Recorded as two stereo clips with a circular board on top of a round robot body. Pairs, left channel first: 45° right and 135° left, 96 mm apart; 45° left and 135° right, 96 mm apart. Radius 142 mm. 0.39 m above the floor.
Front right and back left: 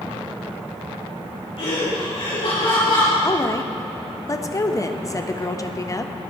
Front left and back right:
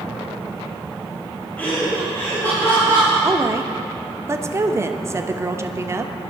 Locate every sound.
1.6 s laughter: 30° right, 5.5 m; by 3.1 s 15° right, 7.5 m
3.2 s a woman speaking: 85° right, 1.1 m